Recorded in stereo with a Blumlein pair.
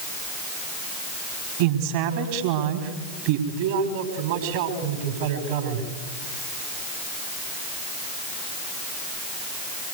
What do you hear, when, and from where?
1.6 s a woman speaking: 50° right, 4 m
3.5 s a man speaking: 50° right, 5 m